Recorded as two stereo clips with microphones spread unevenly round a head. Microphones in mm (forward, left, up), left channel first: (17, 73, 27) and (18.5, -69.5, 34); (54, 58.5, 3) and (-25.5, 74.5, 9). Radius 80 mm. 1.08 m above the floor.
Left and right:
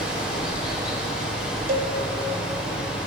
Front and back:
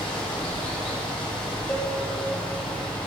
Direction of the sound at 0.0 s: 5° right.